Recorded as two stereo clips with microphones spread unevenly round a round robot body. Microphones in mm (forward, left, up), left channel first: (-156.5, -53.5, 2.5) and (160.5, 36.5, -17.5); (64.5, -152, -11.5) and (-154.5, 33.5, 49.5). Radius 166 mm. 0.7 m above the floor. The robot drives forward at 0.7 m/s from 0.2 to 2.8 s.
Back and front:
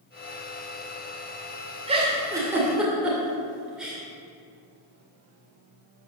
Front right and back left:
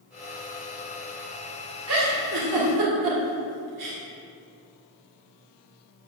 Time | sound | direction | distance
1.9 | a giggle | 85° left | 2.5 m